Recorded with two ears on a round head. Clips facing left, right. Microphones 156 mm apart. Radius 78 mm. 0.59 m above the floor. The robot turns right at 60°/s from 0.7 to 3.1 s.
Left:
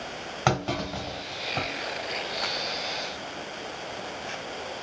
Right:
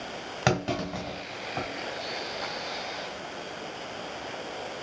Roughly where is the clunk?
Right.